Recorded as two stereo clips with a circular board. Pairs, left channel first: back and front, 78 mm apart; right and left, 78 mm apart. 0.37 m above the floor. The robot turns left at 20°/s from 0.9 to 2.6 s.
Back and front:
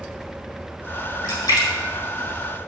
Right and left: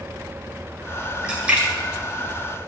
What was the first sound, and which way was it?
A splash, 165° left.